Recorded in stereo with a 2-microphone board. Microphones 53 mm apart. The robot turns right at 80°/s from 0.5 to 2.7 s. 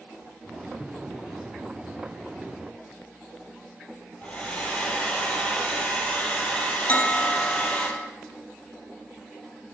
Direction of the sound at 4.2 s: 25° left (ahead or behind).